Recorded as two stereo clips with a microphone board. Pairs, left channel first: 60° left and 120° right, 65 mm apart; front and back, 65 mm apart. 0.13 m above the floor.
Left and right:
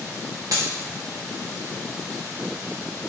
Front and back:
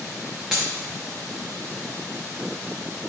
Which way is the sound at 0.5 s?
100° right.